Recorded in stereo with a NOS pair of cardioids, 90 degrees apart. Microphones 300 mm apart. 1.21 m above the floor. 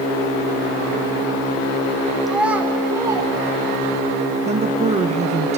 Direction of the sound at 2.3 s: Straight ahead.